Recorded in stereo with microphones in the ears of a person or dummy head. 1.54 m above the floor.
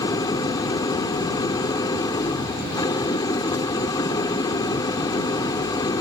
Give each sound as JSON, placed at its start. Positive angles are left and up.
{"t": 0.0, "sound": "an engine running", "side_deg": 25}